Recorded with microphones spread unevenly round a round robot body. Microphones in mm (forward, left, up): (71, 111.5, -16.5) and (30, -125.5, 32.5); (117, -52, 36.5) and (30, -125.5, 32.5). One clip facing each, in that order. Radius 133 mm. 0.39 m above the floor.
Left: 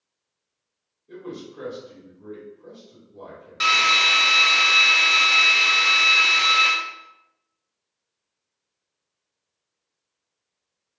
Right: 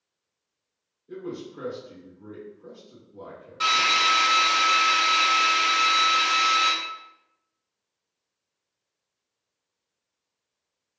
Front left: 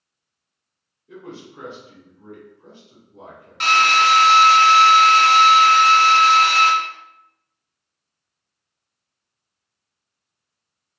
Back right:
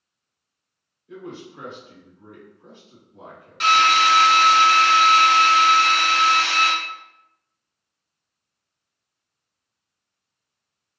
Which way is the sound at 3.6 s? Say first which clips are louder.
Left 1 dB, even; 60° left.